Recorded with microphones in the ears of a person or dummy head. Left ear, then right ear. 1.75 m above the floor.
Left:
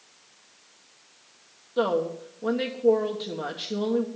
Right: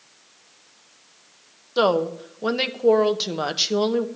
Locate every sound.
1.8 s a woman speaking: 55° right (ahead or behind), 1.2 m